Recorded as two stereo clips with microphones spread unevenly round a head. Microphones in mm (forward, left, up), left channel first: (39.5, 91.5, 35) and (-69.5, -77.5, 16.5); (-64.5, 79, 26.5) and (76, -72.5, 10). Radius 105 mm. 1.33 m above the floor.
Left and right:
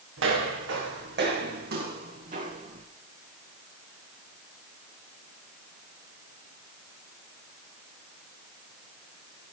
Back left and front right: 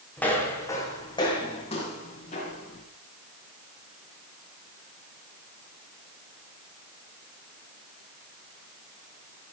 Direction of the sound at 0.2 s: 145° right.